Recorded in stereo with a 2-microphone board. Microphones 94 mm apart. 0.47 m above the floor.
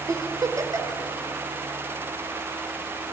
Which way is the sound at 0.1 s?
40° right (ahead or behind).